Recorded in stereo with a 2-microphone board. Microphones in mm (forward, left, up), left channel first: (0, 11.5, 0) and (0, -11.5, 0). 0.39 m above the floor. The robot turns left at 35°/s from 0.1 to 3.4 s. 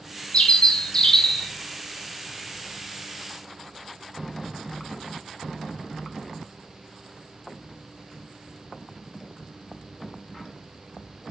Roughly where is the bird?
Ahead left.